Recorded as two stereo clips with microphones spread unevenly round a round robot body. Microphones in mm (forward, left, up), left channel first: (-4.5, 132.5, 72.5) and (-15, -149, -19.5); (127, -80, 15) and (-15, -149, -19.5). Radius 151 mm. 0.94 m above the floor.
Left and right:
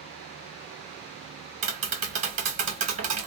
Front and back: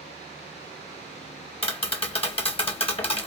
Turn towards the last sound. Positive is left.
turn(degrees=-30)